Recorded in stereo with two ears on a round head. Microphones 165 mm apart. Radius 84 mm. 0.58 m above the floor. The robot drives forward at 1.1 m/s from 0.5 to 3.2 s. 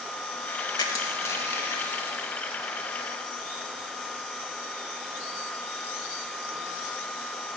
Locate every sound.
0.8 s crushing: 25° left (ahead or behind), 1.1 m; by 2.9 s 10° left (ahead or behind), 3.5 m